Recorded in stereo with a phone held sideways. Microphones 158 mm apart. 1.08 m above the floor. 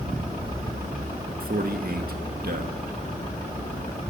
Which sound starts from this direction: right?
A man speaking, at 1.4 s.